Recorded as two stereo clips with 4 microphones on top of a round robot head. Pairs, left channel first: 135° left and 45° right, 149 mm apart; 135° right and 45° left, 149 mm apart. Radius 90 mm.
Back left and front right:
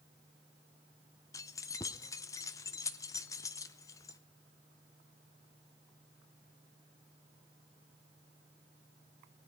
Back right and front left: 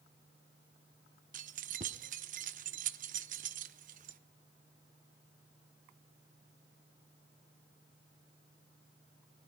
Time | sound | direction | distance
1.3 | keys jangling | 70° left | 0.5 m